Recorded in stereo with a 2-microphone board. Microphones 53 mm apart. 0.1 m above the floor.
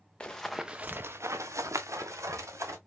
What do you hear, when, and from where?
0.2 s running footsteps: 20° left (ahead or behind), 0.7 m; by 2.8 s 75° right (ahead or behind), 1.6 m